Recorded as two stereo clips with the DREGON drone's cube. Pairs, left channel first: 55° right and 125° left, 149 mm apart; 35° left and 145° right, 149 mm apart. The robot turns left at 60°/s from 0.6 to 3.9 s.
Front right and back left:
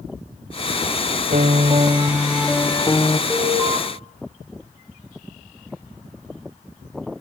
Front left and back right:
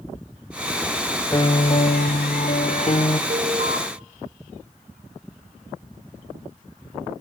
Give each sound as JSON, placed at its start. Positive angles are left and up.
{"t": 1.3, "sound": "a piano", "azimuth_deg": 100, "distance_m": 1.1}
{"t": 3.3, "sound": "an alarm", "azimuth_deg": -140, "distance_m": 5.0}